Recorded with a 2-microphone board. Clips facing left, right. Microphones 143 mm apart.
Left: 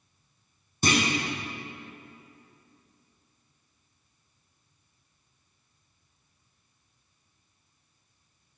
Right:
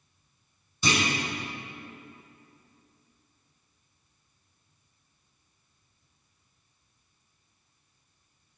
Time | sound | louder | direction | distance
0.8 | a clunk | left 2 dB | 50° left (ahead or behind) | 1.8 m